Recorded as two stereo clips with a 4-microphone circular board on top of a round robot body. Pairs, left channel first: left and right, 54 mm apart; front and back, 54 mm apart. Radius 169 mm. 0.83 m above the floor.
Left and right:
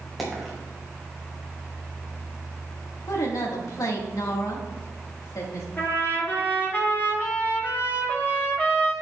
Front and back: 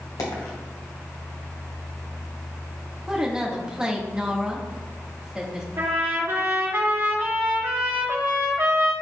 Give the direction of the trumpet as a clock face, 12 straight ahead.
7 o'clock.